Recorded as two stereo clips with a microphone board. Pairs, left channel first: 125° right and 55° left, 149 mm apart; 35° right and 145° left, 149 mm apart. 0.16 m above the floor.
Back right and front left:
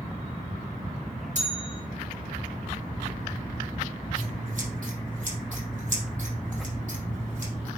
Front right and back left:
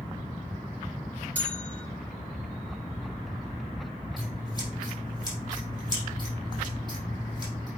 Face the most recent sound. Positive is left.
turn(degrees=25)